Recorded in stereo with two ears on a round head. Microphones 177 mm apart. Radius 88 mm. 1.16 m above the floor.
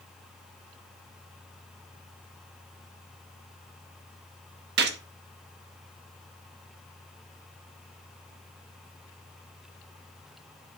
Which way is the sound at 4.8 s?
55° right (ahead or behind).